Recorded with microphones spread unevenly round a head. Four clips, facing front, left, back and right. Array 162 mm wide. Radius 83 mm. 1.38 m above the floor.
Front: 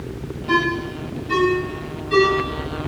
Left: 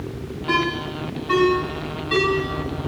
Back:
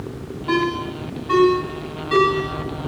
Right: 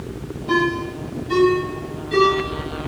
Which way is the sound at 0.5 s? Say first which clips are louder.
Right 3 dB, even; 150° left.